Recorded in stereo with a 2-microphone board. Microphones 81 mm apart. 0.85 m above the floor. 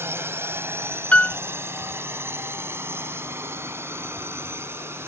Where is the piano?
20° left (ahead or behind).